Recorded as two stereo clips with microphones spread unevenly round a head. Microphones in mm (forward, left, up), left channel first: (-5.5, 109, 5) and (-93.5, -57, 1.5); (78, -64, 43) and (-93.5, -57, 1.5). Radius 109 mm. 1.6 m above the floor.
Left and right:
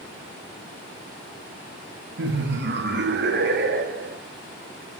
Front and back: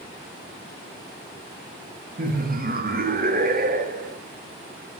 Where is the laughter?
145° right, 2 m.